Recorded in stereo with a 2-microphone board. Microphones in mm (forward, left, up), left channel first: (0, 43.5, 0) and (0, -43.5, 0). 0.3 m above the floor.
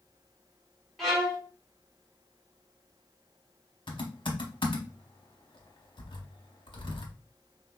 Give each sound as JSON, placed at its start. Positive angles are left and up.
{"t": 1.0, "sound": "a violin", "side_deg": 0, "distance_m": 1.5}
{"t": 3.9, "sound": "typing on a keyboard", "side_deg": 65, "distance_m": 0.9}